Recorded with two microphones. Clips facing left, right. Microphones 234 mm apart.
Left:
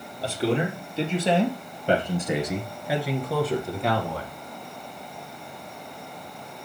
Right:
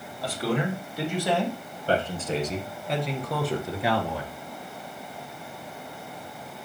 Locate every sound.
0.2 s a man speaking: 30° left (ahead or behind), 2.5 m; by 4.3 s 15° right (ahead or behind), 1.4 m